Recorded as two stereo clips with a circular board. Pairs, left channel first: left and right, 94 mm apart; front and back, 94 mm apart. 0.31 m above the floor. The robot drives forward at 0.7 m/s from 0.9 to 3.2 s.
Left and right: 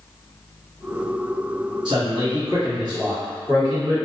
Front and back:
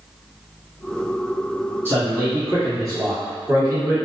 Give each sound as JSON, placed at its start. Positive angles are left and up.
{"t": 1.9, "sound": "a man speaking", "azimuth_deg": -115, "distance_m": 1.9}